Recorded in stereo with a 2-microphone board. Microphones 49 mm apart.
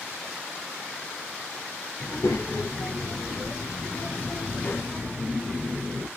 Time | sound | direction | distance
2.0 | a child speaking | 70° left (ahead or behind) | 1.4 m